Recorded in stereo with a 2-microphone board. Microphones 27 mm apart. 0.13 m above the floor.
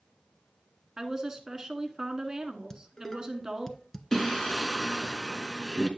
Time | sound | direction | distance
1.0 | a woman speaking | 25° right (ahead or behind) | 1.2 m
2.7 | dishes clattering | 15° left (ahead or behind) | 1.0 m
4.1 | singing | 15° left (ahead or behind) | 1.1 m